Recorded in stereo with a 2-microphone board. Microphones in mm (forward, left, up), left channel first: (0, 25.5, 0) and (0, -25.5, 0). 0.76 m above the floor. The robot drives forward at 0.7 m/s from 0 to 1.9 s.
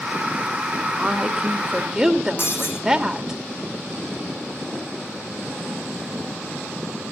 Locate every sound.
1.0 s a woman speaking: 15° right (ahead or behind), 2.0 m; by 3.4 s 10° right (ahead or behind), 2.5 m
2.4 s breaking glass: 50° left (ahead or behind), 5 m